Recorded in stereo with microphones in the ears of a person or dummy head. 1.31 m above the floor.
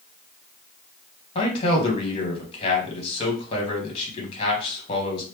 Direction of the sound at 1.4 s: 35° left (ahead or behind).